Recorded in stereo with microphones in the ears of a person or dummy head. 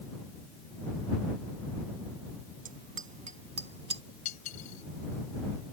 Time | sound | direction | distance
2.6 | a bicycle bell | 40° right (ahead or behind) | ?
4.2 | cutlery clinking | 40° left (ahead or behind) | ?